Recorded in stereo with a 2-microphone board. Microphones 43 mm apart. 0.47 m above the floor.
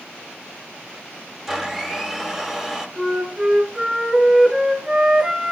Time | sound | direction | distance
1.5 | a blender | 15° right (ahead or behind) | 2.5 m
3.0 | a flute | 10° right (ahead or behind) | 1.8 m